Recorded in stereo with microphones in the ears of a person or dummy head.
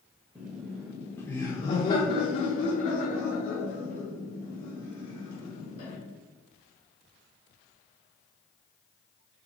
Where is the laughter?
20° right (ahead or behind), 1.1 m; by 6.0 s 85° left, 2.5 m.